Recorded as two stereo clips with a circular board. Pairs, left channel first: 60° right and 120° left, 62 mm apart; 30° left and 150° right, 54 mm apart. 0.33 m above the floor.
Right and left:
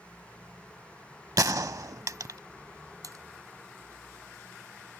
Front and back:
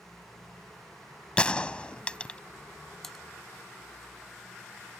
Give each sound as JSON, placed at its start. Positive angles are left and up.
{"t": 1.4, "sound": "a gunshot", "azimuth_deg": 100}
{"t": 3.0, "sound": "typing on a keyboard", "azimuth_deg": 115}